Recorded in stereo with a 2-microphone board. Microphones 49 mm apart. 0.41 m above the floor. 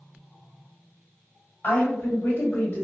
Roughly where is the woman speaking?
Left.